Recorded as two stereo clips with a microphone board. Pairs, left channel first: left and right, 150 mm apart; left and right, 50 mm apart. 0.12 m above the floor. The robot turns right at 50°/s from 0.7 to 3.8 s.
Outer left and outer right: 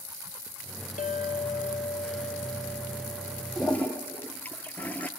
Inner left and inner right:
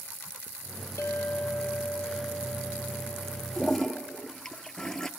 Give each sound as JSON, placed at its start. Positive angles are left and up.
{"t": 1.0, "sound": "a clink", "azimuth_deg": 80, "distance_m": 2.0}
{"t": 3.6, "sound": "a toilet flushing", "side_deg": 0, "distance_m": 1.1}